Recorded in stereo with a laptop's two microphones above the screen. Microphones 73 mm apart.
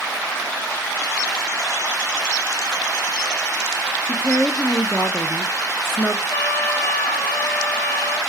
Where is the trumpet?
25° left (ahead or behind), 1.6 m.